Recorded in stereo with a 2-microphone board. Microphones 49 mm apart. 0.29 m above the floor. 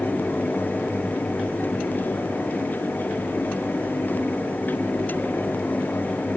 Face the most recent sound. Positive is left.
No sound to turn to.